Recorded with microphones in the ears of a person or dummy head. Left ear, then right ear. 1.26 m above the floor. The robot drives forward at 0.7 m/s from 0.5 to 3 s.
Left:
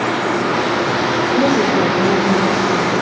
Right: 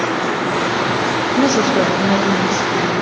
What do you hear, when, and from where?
1.4 s a woman speaking: 70° right (ahead or behind), 1.4 m; by 2.9 s 60° right (ahead or behind), 1.5 m